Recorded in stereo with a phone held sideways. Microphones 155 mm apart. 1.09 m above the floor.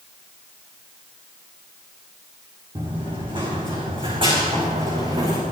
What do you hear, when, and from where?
2.8 s running footsteps: 30° right (ahead or behind), 4 m; by 5.4 s 35° right (ahead or behind), 5.5 m